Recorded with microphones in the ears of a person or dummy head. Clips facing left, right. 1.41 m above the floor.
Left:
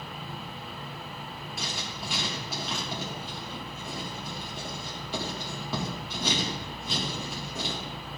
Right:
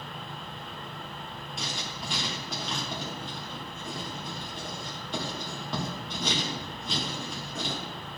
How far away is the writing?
About 1.6 m.